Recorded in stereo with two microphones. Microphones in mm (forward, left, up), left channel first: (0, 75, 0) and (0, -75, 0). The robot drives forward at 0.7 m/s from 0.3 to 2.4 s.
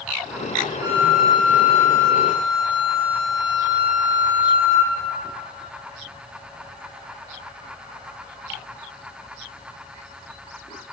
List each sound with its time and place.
0.8 s a flute: 25° right (ahead or behind), 4.5 m; by 4.9 s 30° right (ahead or behind), 3.5 m